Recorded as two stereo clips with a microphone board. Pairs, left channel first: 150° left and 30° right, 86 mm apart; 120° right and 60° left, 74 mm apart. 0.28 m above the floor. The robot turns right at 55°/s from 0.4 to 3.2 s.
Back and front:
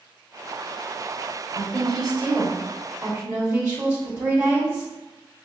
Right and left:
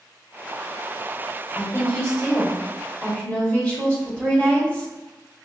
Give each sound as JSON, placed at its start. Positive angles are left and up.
{"t": 1.6, "sound": "a woman speaking", "azimuth_deg": -170, "distance_m": 1.1}